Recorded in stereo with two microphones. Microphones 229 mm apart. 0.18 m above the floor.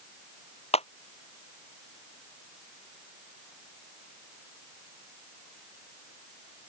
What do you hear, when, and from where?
0.7 s a clap: 25° left (ahead or behind)